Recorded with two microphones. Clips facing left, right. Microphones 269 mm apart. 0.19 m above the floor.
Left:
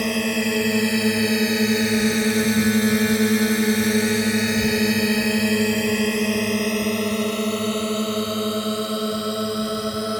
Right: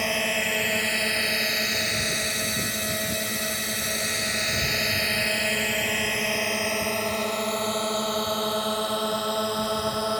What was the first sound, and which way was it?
A drone, 40° left (ahead or behind).